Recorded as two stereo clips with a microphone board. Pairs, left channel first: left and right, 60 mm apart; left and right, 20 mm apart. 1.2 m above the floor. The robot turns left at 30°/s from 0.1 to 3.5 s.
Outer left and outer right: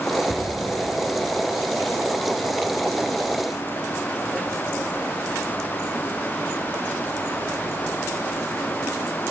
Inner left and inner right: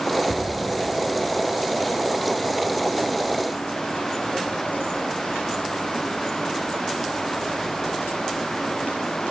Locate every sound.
0.3 s a cupboard door: 10° right (ahead or behind), 1.4 m; by 0.5 s 5° right (ahead or behind), 1.4 m